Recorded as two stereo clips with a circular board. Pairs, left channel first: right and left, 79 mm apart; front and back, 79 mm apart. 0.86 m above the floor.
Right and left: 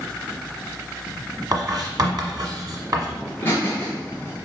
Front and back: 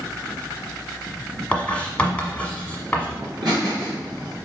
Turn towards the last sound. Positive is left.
turn(degrees=-155)